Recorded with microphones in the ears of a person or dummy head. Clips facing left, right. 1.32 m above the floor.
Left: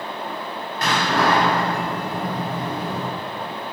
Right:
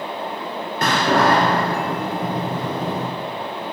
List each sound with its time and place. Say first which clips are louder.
0.8 s a door slam: right 3 dB; 50° right (ahead or behind), 2 m